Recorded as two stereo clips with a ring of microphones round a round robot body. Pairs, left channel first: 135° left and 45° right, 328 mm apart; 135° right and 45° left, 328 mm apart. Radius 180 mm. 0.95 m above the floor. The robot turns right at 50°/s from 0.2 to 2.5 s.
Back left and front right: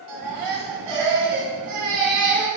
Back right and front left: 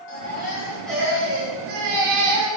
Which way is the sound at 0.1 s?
80° right.